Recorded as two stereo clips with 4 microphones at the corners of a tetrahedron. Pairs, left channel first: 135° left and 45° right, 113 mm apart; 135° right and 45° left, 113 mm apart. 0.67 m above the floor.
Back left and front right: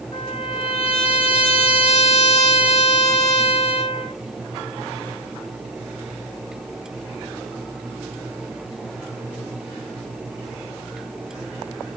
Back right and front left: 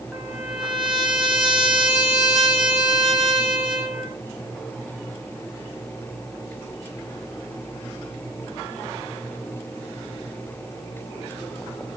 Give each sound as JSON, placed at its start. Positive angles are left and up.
{"t": 0.1, "sound": "a trumpet", "azimuth_deg": 125, "distance_m": 1.0}